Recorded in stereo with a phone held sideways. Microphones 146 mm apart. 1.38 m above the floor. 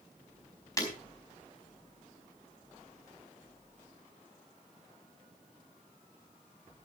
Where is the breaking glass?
25° left (ahead or behind), 4.5 m.